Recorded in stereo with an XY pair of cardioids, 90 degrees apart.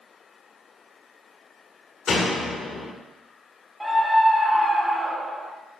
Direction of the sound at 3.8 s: 10° right.